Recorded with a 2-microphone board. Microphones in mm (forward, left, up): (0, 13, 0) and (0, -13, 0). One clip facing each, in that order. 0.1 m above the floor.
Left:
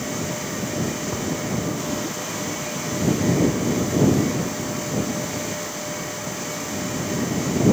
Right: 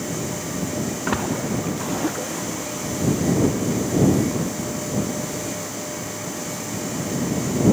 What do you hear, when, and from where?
1.1 s a splash: 75° right (ahead or behind)